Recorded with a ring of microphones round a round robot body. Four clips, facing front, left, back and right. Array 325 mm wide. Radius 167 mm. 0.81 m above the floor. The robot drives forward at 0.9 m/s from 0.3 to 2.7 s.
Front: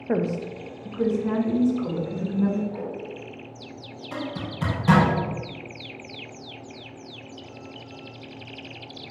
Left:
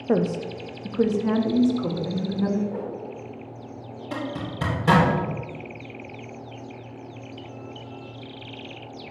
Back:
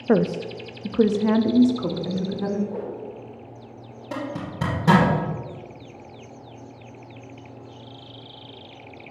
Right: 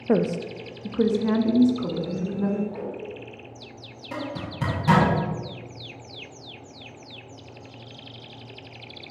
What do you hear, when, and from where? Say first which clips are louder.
0.1 s a woman speaking: even, back 5 dB; 170° right, 0.5 m; by 2.6 s straight behind, 2.5 m
2.7 s a whoosh: left 2 dB, back 1 dB; 160° left, 3.5 m
4.1 s a zipper: left 1 dB, back 2 dB; 165° left, 3.5 m